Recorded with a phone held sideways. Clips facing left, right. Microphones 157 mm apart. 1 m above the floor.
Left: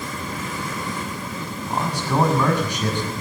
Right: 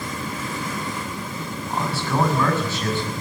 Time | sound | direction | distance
1.7 | a man speaking | 15° left (ahead or behind) | 7.5 m